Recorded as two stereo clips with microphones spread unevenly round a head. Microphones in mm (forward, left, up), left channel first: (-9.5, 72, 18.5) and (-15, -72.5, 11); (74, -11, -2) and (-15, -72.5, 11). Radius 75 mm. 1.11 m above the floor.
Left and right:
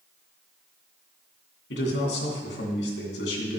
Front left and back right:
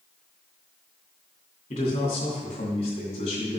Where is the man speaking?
75° left, 2.5 m.